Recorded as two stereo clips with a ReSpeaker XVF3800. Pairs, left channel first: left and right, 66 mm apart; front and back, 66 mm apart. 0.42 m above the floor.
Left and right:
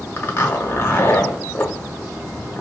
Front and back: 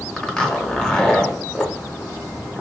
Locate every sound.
0.2 s a zipper: 75° left, 0.7 m